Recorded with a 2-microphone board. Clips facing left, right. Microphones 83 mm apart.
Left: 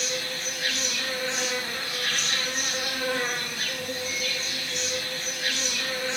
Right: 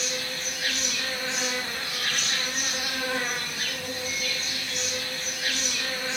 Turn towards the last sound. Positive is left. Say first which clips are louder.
# left 1 dB
turn(degrees=0)  # may be behind; listen again after turning